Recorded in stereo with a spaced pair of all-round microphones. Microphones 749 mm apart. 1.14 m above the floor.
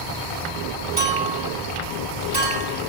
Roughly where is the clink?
Right.